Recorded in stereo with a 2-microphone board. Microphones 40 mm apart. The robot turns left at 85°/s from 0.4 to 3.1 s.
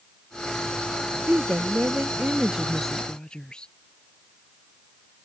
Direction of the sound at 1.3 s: 50° right.